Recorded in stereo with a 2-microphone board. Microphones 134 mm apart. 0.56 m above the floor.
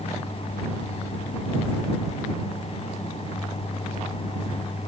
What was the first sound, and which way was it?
Only background noise.